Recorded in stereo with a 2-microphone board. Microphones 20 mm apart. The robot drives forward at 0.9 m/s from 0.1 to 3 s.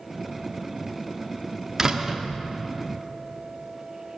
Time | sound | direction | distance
1.8 | a door slam | 30° right (ahead or behind) | 1.0 m